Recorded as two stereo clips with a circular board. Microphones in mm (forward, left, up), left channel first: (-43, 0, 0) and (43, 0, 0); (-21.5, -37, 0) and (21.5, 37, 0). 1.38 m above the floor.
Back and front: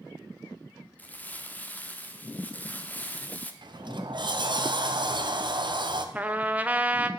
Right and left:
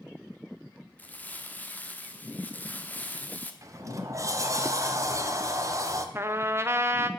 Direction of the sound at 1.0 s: 150° right.